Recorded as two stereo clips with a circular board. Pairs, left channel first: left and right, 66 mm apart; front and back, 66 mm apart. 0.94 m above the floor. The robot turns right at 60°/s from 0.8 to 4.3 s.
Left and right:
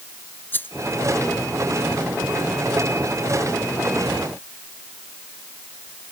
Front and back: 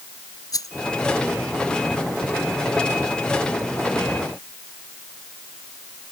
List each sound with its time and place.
0.5 s a rattle: 30° left